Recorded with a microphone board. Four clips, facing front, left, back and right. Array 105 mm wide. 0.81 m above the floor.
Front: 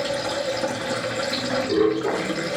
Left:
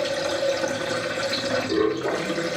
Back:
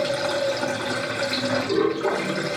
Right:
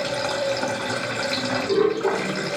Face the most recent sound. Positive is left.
turn(degrees=-125)